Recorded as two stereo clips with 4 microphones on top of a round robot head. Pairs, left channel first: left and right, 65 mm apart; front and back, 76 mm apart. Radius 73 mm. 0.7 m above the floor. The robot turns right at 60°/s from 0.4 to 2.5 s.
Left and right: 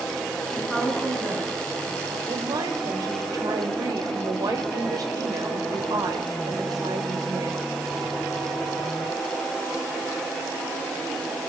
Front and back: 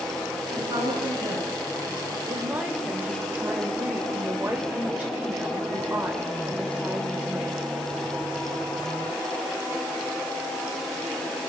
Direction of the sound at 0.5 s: 170° left.